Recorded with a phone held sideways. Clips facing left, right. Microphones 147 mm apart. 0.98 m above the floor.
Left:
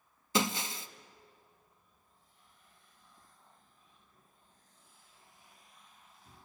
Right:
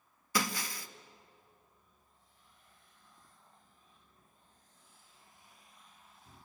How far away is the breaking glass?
About 0.7 m.